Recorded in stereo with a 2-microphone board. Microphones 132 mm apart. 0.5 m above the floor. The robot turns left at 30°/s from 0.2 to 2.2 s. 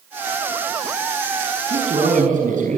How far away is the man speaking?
About 6 m.